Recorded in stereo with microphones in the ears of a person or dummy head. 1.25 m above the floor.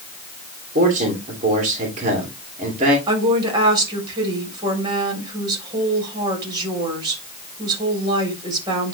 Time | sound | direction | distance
0.8 | a man speaking | 40° right (ahead or behind) | 2.5 m
3.1 | a woman speaking | 25° right (ahead or behind) | 4 m